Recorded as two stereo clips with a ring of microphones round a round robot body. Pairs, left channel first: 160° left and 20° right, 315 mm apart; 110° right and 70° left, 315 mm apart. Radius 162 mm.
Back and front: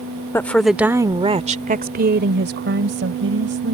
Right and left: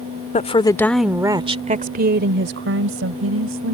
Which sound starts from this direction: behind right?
A woman speaking, at 0.3 s.